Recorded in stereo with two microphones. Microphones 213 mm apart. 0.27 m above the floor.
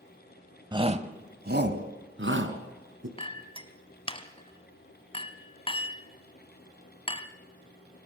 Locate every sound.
0.7 s a shout: 20° right (ahead or behind), 1.2 m; by 3.1 s 70° right (ahead or behind), 3 m
3.2 s a clink: 25° left (ahead or behind), 1.3 m